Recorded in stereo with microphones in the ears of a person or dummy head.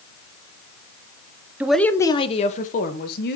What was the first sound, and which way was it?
A woman speaking, 10° right (ahead or behind).